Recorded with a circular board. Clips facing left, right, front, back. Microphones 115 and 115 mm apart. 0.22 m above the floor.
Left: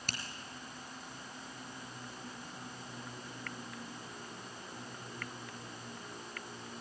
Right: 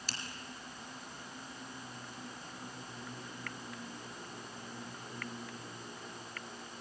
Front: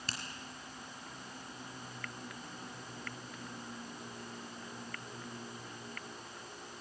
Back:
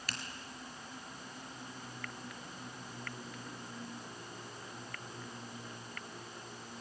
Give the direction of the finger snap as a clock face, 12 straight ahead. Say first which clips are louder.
Left 2 dB, even; 10 o'clock.